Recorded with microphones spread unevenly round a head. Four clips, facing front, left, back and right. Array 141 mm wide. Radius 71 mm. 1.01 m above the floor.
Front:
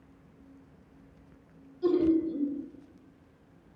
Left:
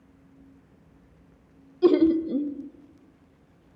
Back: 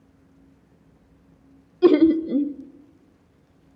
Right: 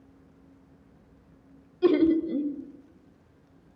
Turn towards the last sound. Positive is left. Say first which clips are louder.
# left 2 dB, back 9 dB
turn(degrees=165)